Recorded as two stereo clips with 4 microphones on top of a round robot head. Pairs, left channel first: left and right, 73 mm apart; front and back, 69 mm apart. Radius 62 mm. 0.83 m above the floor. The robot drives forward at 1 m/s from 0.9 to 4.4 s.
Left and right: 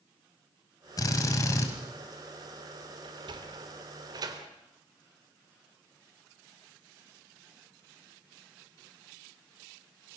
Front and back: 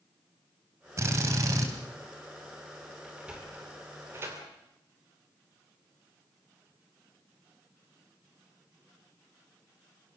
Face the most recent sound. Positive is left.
turn(degrees=-125)